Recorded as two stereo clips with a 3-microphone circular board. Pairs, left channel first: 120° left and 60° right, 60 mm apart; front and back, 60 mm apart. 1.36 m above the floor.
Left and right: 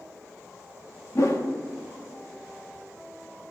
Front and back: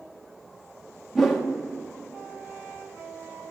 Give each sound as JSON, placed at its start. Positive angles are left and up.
{"t": 1.1, "sound": "a whoosh", "azimuth_deg": 95, "distance_m": 1.4}